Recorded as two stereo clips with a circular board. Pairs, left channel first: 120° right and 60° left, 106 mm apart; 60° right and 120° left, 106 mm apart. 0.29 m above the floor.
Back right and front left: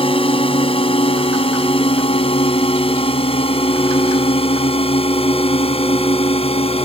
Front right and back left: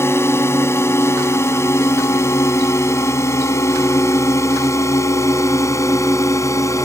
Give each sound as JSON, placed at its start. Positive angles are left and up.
{"t": 0.0, "sound": "a drone", "azimuth_deg": -125}